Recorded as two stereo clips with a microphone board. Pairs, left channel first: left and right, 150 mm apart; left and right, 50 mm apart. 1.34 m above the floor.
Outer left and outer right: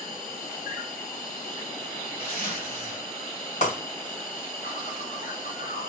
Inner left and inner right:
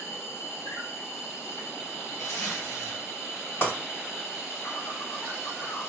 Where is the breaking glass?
55° left (ahead or behind), 2 m.